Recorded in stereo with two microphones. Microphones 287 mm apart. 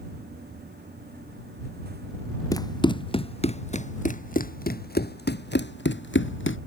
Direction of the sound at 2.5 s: 10° left (ahead or behind).